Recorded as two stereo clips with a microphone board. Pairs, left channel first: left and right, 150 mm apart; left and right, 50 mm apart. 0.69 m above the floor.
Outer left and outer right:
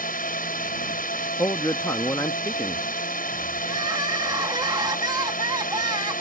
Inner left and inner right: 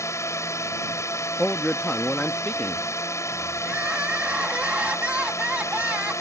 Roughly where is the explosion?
No explosion in this recording.